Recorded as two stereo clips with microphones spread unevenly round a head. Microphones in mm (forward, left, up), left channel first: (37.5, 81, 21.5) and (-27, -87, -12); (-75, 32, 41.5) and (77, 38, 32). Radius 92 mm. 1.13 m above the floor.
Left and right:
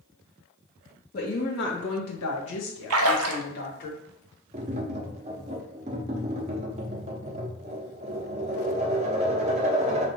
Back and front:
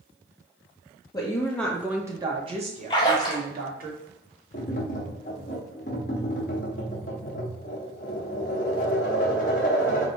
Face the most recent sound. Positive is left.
turn(degrees=-165)